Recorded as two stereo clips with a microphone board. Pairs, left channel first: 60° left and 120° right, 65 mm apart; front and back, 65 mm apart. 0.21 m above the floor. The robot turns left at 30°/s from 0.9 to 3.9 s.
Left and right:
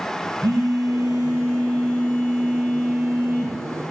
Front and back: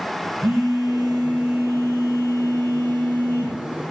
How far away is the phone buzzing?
About 4.5 m.